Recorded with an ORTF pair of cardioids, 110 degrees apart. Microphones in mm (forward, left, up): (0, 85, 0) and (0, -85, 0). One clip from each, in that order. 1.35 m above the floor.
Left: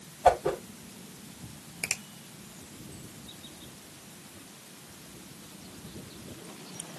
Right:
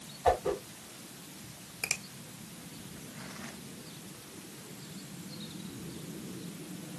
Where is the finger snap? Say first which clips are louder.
Left 1 dB; 10° left, 0.9 m.